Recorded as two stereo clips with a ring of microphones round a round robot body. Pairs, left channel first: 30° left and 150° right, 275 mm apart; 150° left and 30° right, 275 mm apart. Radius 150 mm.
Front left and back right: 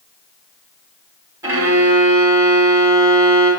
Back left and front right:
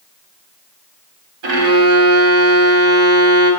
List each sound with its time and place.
1.4 s a violin: 70° right, 1.1 m